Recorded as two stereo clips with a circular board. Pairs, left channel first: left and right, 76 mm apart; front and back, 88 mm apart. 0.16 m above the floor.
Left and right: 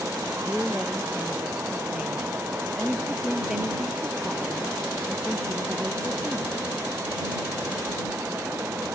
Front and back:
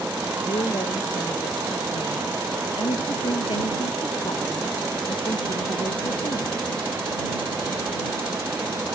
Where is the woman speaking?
10° right.